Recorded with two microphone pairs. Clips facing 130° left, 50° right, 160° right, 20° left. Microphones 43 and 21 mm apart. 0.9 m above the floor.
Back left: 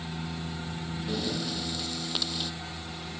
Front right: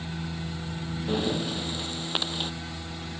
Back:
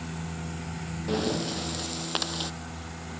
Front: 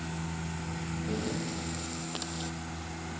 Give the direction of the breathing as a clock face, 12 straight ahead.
4 o'clock.